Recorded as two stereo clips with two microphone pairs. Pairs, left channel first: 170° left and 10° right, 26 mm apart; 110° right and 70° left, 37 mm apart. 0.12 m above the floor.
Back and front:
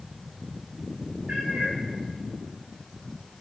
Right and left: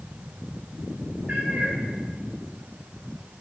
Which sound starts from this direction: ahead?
A cat meowing, at 1.3 s.